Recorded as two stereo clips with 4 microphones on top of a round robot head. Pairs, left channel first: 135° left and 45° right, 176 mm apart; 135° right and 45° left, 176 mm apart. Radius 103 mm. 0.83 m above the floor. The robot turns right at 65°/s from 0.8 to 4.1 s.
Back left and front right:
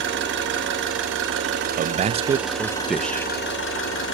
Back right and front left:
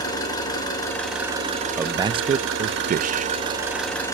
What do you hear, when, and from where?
0.0 s an engine running: 65° right, 7 m; by 4.2 s 150° left, 7 m
1.8 s a man speaking: 30° right, 0.7 m; by 3.3 s 70° left, 0.7 m